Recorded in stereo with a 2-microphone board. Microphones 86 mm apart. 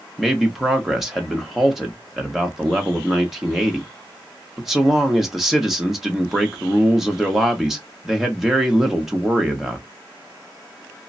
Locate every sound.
0.2 s a man speaking: 5° right (ahead or behind), 0.8 m